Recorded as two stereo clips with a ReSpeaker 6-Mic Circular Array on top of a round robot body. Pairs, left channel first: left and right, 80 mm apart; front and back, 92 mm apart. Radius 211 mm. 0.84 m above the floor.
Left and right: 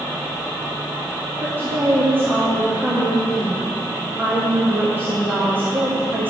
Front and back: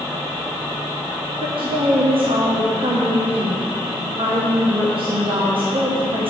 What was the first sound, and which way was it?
A woman speaking, 155° right.